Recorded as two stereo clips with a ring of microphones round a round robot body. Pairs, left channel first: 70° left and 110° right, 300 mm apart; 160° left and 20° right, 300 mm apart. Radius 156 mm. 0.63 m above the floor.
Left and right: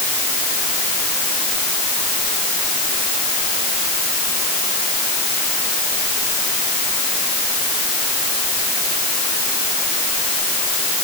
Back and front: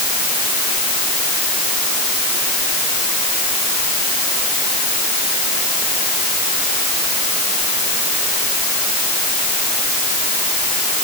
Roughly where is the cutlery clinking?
I don't hear cutlery clinking.